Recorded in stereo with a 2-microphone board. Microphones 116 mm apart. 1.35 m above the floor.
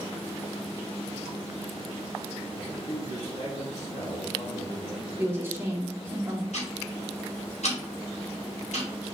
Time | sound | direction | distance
2.6 | a man speaking | 80° left | 3.5 m
5.2 | a woman speaking | 20° right (ahead or behind) | 1.8 m
6.5 | ticking | 80° left | 4 m